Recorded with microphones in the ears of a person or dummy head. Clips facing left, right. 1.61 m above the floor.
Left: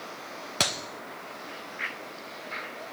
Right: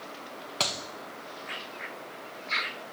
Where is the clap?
20° left (ahead or behind), 0.6 m.